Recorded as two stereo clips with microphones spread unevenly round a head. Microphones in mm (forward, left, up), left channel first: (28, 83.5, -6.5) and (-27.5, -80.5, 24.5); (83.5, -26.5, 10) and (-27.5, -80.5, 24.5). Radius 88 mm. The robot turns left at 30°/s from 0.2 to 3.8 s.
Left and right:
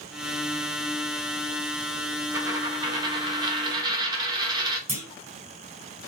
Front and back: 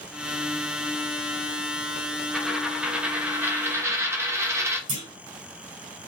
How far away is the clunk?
About 1.6 m.